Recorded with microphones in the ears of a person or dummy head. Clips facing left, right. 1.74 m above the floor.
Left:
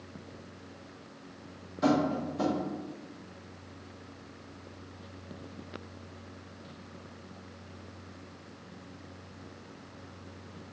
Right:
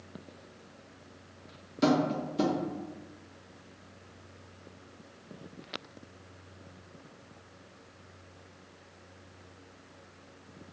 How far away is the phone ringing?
No phone ringing in this recording.